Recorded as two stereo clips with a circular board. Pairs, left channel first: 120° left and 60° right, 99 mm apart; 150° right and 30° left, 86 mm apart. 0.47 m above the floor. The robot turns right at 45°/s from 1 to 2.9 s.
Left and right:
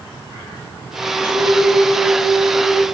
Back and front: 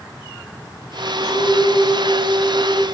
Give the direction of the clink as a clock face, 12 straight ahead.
4 o'clock.